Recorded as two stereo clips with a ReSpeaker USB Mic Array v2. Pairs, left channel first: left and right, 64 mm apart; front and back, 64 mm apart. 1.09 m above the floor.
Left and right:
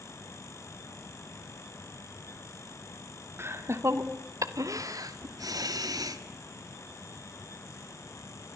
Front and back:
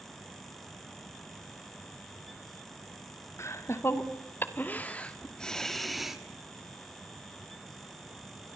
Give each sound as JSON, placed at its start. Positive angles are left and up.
{"t": 3.4, "sound": "laughter", "azimuth_deg": -40, "distance_m": 2.5}